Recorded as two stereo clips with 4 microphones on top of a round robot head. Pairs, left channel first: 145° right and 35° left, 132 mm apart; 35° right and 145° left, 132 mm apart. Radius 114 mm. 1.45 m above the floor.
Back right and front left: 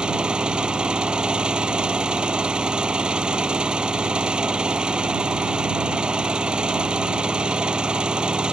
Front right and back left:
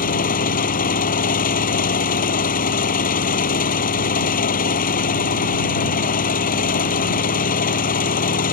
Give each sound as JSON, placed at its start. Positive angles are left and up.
{"t": 0.0, "sound": "an engine running", "azimuth_deg": -50}